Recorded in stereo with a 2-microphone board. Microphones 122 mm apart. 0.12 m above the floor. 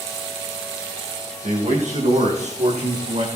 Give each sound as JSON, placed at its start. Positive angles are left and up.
{"t": 1.4, "sound": "a man speaking", "side_deg": -80, "distance_m": 8.5}